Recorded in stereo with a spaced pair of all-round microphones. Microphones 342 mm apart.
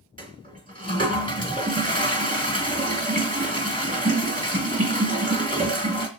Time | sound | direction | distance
0.2 | a toilet flushing | 25° right (ahead or behind) | 3 m